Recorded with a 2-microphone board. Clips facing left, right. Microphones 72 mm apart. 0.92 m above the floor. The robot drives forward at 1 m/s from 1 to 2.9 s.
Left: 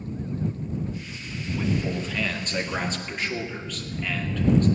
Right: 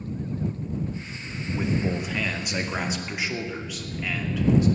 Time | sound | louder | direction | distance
1.5 | a man speaking | right 1 dB | 15° right (ahead or behind) | 1.3 m